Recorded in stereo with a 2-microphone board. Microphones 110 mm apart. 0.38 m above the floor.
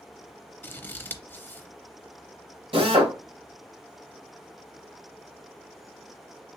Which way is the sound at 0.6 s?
20° left (ahead or behind).